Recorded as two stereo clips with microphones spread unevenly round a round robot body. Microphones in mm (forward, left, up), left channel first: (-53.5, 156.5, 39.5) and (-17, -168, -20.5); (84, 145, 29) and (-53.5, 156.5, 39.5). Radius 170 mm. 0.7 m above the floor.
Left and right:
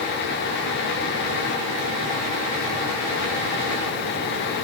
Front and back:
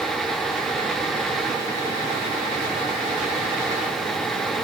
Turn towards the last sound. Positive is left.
No sound to turn to.